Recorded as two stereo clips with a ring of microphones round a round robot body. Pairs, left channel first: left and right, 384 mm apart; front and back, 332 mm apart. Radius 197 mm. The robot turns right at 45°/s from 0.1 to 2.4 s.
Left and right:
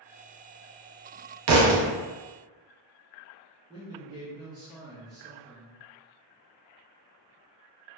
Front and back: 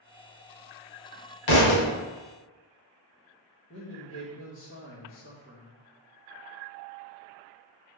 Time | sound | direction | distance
1.5 | a thud | 40° right | 0.5 m
3.7 | a man speaking | 20° right | 0.9 m